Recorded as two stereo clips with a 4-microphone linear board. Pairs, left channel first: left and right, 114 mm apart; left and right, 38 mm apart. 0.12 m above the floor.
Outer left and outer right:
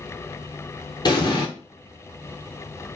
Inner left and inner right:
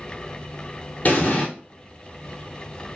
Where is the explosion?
40° left (ahead or behind), 0.8 m.